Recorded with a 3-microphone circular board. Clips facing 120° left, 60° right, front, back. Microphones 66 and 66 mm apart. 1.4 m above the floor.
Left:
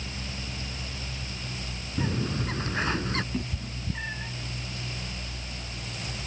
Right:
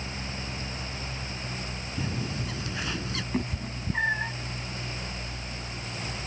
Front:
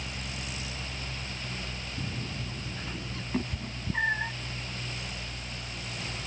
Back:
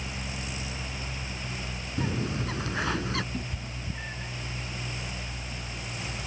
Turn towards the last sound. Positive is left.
turn(degrees=-25)